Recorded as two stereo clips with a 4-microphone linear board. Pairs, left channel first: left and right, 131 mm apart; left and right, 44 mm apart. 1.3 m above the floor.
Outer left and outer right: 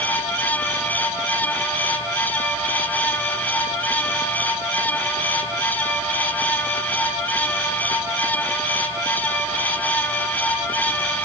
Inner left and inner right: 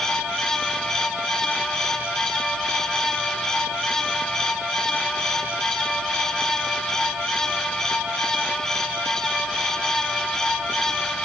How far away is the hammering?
I don't hear hammering.